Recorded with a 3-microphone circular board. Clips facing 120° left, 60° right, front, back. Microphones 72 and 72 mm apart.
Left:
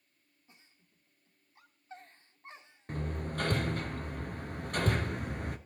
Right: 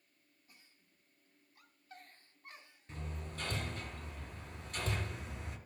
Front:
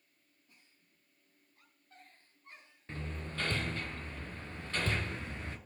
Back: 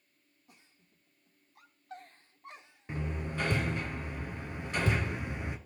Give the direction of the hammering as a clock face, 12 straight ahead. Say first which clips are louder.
Left 10 dB, back 5 dB; 8 o'clock.